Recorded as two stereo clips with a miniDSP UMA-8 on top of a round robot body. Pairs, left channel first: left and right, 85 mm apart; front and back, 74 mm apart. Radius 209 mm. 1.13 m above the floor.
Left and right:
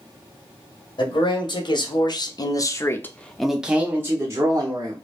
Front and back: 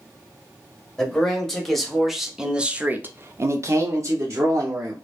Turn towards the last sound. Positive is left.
turn(degrees=-130)